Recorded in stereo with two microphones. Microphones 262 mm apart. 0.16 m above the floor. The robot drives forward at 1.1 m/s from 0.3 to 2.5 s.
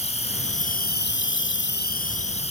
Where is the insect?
25° left (ahead or behind), 1.4 m.